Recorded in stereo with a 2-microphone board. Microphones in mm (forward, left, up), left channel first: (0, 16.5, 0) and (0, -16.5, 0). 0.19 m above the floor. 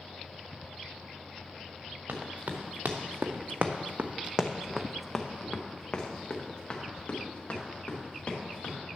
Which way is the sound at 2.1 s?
75° right (ahead or behind).